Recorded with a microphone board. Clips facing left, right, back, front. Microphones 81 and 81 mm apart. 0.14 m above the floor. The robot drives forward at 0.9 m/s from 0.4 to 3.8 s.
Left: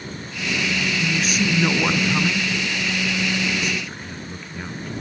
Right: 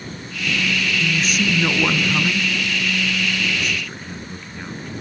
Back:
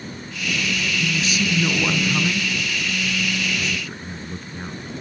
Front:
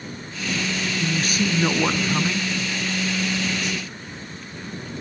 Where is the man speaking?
Straight ahead, 2.0 m; by 4.9 s straight behind, 1.8 m.